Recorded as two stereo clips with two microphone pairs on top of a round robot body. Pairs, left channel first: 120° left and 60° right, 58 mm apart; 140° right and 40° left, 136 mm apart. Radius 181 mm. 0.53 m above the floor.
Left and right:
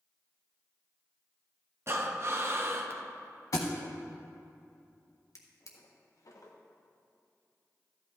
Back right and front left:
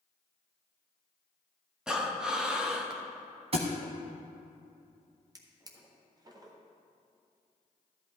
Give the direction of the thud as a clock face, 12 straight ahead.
9 o'clock.